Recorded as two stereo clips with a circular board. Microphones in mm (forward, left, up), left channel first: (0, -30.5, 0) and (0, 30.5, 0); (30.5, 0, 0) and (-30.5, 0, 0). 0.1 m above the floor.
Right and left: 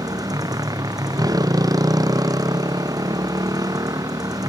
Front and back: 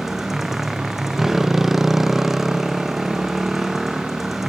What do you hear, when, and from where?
0.0 s a motorcycle: 95° left